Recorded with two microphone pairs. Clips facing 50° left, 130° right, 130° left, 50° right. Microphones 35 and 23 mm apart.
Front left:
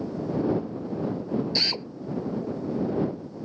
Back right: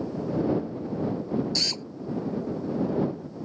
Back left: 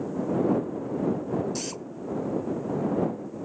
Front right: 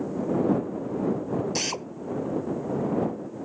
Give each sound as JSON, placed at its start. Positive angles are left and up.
{"t": 1.6, "sound": "a drill", "azimuth_deg": -5}